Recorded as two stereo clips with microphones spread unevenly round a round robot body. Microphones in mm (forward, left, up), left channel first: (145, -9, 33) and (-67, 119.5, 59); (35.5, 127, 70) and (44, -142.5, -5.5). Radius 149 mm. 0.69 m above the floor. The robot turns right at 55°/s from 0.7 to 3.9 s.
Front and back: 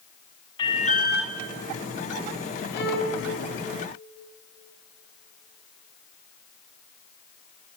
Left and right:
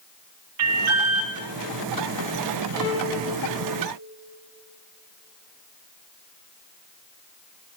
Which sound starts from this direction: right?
An alarm, at 0.6 s.